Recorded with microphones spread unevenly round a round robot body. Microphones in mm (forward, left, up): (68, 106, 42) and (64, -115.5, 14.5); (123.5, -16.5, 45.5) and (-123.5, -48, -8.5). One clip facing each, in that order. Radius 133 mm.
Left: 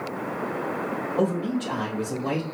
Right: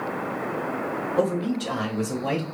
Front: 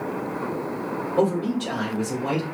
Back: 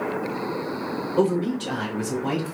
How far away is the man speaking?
About 1.8 m.